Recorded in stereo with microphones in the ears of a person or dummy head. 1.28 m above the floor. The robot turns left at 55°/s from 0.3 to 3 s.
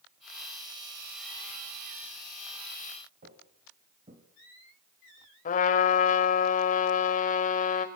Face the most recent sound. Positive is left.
turn(degrees=45)  # may be behind; listen again after turning